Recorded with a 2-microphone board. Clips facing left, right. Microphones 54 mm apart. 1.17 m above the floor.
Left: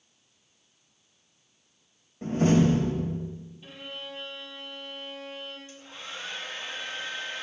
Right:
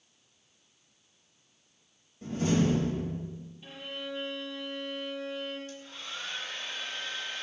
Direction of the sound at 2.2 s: 45° left (ahead or behind).